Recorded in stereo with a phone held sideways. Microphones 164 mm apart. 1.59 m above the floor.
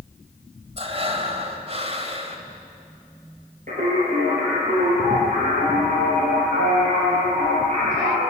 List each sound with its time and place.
0.8 s breathing: 40° right (ahead or behind), 2.5 m
3.7 s singing: 50° right (ahead or behind), 8 m